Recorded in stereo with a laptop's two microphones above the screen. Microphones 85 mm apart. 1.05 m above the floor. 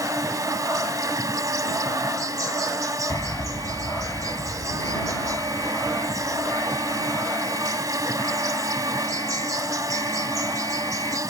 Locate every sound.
0.0 s an insect: 45° right (ahead or behind)
3.1 s an alarm: 45° left (ahead or behind)